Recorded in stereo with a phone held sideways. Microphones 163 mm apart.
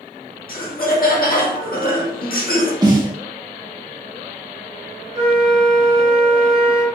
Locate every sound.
0.5 s laughter: 65° left (ahead or behind), 0.7 m
2.8 s a snare drum: 25° right (ahead or behind), 0.7 m
5.2 s a flute: 60° right (ahead or behind), 2.0 m